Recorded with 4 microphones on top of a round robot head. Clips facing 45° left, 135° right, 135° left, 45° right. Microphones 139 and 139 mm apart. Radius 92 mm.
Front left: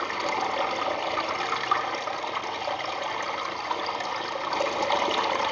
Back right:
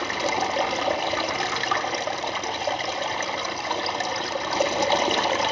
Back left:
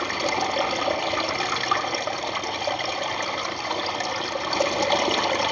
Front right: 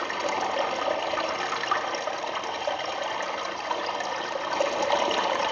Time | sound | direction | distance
0.0 | running water | straight behind | 1.1 m